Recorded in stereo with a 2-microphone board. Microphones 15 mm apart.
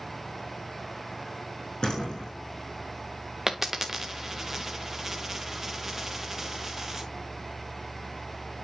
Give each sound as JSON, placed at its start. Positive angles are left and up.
{"t": 1.8, "sound": "a door slam", "side_deg": 70, "distance_m": 6.0}
{"t": 3.5, "sound": "a dropped coin", "side_deg": -20, "distance_m": 1.0}